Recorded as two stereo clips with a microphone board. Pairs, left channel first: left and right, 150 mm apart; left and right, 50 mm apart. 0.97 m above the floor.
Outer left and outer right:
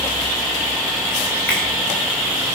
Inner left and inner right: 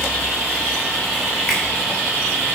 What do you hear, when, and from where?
1.5 s a finger snap: 5° left (ahead or behind), 6 m